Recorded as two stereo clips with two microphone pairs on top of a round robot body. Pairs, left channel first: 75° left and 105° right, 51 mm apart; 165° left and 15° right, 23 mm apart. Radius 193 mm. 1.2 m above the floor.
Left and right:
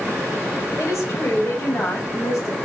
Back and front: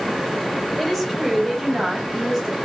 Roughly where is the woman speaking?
Left.